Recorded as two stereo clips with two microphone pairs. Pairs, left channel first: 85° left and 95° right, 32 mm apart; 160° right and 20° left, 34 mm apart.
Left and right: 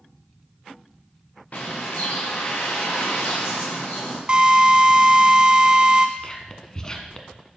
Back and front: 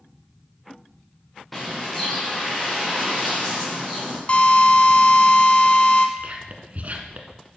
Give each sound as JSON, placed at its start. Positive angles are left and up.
{"t": 1.5, "sound": "a bird", "azimuth_deg": 115, "distance_m": 3.0}
{"t": 4.3, "sound": "a drill", "azimuth_deg": -140, "distance_m": 1.3}
{"t": 6.2, "sound": "whispering", "azimuth_deg": 25, "distance_m": 1.7}